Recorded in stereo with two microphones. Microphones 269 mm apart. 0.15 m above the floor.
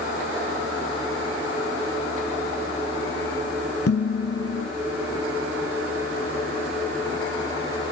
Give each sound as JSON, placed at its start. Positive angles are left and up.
{"t": 3.9, "sound": "dishes clattering", "side_deg": 60, "distance_m": 1.5}